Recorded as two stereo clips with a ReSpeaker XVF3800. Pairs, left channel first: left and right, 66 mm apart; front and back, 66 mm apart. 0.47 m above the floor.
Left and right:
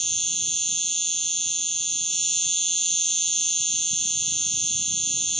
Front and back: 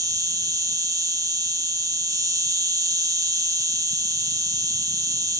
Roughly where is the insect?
Behind.